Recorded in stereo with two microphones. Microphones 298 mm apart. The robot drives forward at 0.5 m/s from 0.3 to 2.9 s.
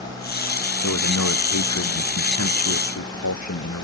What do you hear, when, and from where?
0.8 s a man speaking: 75° left (ahead or behind); by 3.8 s 80° left